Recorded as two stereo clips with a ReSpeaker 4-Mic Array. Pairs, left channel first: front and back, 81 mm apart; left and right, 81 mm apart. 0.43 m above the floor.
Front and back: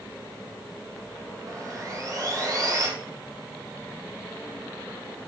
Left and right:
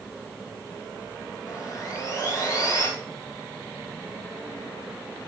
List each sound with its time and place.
1.5 s sawing: 135° left, 5 m